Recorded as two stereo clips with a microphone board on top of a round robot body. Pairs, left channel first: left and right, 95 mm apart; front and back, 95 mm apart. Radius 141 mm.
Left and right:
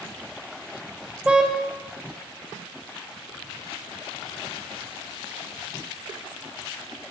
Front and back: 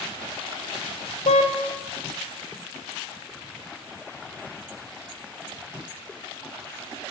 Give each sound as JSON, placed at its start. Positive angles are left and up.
{"t": 1.2, "sound": "a car horn", "azimuth_deg": -10, "distance_m": 2.5}